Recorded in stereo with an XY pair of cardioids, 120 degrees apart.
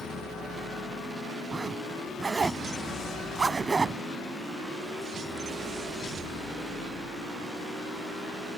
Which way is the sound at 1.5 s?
25° right.